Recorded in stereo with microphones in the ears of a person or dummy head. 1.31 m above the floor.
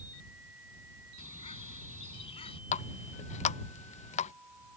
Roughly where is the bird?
Left.